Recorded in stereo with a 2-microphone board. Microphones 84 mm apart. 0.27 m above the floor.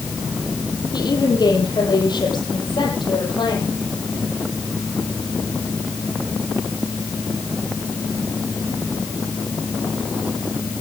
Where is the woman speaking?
60° left (ahead or behind), 7.5 m; by 3.7 s 70° left (ahead or behind), 8.5 m.